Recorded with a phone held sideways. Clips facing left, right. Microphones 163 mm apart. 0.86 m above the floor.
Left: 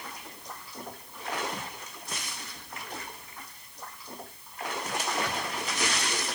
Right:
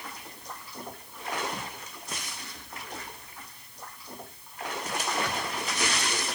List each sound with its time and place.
Only background noise.